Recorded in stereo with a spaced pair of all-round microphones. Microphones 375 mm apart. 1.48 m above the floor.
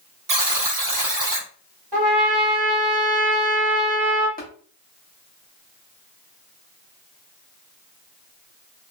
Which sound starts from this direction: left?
Tapping, at 4.4 s.